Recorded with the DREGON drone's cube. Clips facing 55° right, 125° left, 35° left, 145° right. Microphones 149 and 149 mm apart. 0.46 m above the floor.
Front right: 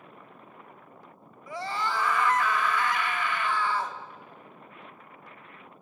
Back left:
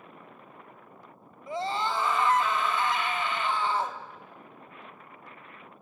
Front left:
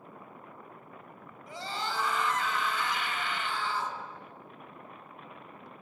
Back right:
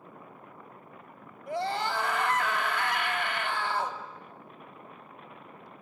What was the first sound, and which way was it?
A scream, 170° right.